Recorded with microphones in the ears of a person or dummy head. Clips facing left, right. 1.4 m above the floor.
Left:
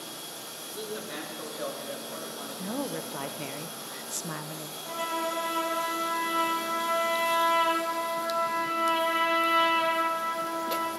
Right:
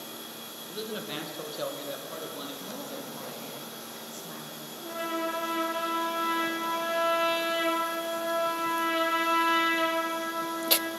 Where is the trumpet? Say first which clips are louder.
Right 2 dB; 30° right (ahead or behind), 2 m.